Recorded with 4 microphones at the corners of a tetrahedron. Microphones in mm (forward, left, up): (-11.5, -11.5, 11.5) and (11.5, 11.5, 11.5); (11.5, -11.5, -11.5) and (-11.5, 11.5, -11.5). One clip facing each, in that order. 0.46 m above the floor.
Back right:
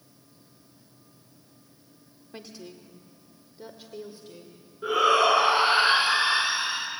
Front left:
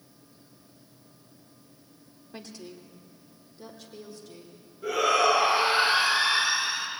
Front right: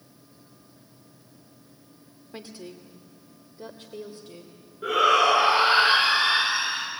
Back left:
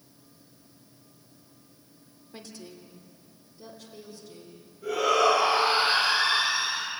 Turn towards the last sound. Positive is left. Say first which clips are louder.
# back right 2 dB, front right 3 dB
turn(degrees=-85)